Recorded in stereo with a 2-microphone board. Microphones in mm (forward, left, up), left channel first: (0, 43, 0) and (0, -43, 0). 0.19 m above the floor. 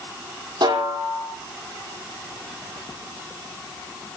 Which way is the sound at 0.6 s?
60° right (ahead or behind).